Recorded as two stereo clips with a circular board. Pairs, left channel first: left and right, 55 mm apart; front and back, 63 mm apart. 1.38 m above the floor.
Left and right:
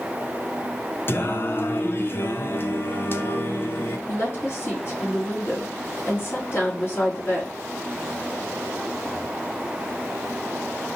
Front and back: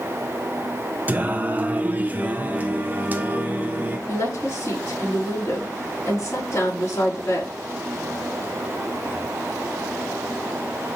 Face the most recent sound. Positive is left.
turn(degrees=45)